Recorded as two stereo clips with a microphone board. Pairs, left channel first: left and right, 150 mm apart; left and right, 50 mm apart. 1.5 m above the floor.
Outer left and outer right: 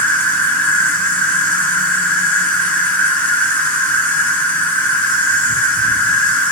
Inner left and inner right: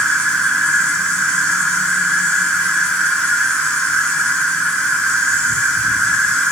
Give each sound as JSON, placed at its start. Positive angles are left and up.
{"t": 0.0, "sound": "an insect", "side_deg": 15, "distance_m": 1.1}